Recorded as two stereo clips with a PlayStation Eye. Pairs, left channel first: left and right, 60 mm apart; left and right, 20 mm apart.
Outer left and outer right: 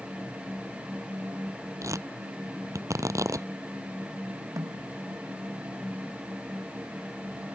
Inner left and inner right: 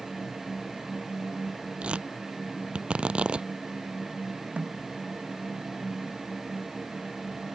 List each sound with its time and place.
1.8 s tearing paper: 65° right (ahead or behind)
4.6 s a snare drum: 75° right (ahead or behind)